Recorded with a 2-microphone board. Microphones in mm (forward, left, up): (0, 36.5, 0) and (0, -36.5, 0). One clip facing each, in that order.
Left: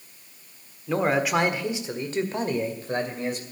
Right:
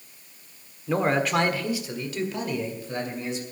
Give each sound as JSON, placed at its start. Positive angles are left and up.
{"t": 0.9, "sound": "a man speaking", "side_deg": -5, "distance_m": 1.3}